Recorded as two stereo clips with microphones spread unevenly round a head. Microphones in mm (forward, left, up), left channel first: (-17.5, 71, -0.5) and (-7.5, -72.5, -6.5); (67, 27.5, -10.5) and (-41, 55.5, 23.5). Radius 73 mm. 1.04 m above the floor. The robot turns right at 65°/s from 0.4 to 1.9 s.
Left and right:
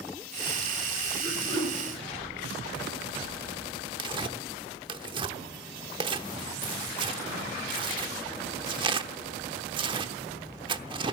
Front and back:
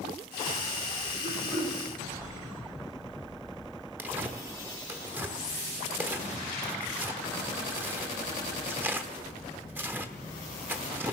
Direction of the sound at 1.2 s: 165° right.